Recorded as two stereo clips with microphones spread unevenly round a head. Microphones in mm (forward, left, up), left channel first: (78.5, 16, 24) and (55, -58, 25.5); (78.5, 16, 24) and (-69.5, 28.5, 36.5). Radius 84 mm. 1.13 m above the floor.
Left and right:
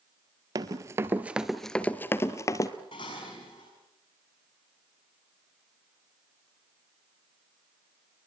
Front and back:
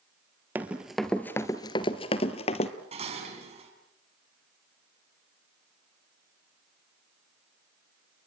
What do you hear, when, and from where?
0.6 s running footsteps: 115° right, 1.5 m; by 2.7 s 40° left, 1.7 m
2.9 s dishes clattering: 125° left, 6 m